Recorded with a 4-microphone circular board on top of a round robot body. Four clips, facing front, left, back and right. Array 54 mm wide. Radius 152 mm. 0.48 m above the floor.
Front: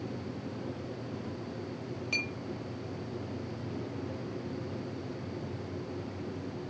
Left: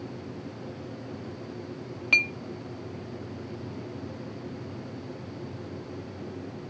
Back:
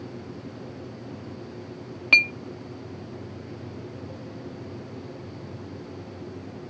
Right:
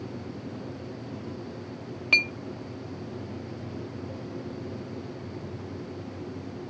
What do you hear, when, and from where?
2.1 s a clink: straight behind, 0.8 m